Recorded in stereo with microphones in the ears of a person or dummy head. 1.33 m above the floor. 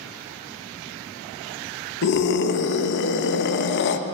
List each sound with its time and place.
2.0 s a scream: 55° left (ahead or behind), 0.7 m